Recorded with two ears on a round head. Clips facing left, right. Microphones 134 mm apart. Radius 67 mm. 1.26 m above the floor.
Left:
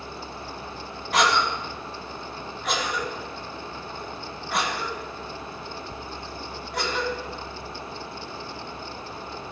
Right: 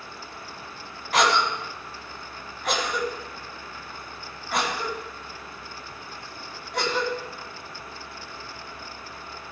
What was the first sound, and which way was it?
A cough, centre (ahead or behind).